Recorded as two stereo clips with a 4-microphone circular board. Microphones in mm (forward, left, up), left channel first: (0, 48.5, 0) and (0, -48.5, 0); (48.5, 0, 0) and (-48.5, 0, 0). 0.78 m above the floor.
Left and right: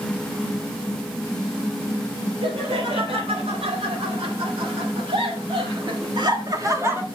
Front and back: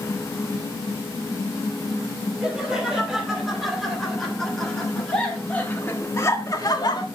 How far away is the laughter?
About 4.5 m.